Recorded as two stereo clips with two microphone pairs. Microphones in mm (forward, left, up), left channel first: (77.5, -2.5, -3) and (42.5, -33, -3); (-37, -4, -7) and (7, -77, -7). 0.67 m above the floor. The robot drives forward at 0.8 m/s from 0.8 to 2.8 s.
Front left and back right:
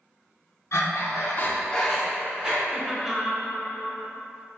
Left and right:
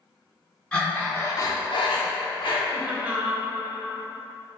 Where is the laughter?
55° right, 0.7 m; by 3.5 s 70° right, 0.6 m.